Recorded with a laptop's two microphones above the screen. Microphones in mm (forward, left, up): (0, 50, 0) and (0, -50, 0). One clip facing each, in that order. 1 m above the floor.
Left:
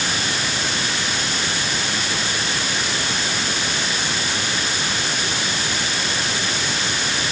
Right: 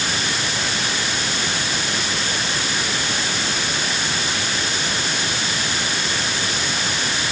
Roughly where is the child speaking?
No child speaking in this recording.